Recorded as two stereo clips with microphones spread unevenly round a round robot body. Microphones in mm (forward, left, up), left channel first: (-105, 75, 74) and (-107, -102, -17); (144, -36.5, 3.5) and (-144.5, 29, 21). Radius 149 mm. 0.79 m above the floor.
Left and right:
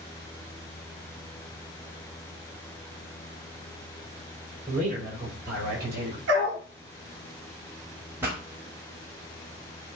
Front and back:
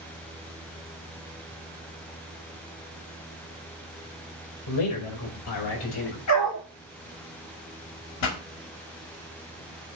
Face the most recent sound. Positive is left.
turn(degrees=-20)